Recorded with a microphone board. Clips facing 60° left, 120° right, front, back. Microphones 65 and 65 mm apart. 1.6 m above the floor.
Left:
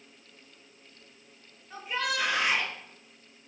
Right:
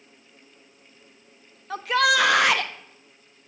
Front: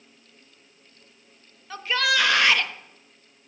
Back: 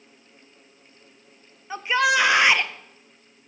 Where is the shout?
110° right, 0.5 m.